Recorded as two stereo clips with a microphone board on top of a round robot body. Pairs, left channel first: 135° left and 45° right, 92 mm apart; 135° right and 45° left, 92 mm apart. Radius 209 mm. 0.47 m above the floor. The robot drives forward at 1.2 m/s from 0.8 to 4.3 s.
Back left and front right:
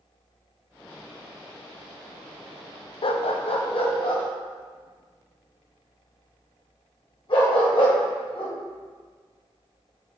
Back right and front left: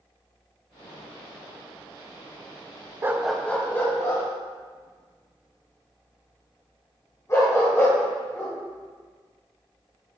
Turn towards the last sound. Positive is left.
turn(degrees=165)